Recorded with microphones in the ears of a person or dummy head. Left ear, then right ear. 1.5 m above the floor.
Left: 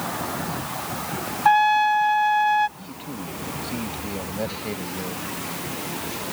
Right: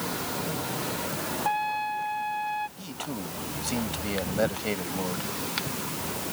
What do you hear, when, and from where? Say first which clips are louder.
1.4 s a trumpet: left 12 dB; 50° left (ahead or behind)
2.8 s a man speaking: even; 55° right (ahead or behind)